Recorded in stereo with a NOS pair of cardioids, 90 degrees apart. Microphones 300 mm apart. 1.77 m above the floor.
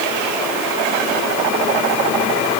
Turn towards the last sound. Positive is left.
No sound to turn to.